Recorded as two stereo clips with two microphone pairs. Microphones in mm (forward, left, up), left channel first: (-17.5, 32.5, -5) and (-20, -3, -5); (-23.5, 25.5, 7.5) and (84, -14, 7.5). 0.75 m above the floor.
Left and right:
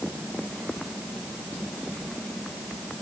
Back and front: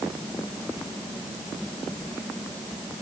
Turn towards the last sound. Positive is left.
No sound to turn to.